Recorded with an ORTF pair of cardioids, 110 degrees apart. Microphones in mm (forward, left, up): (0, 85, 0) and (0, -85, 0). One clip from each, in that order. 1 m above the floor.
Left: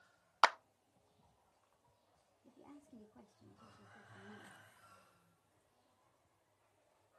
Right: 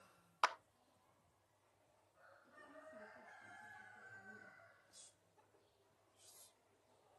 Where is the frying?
No frying in this recording.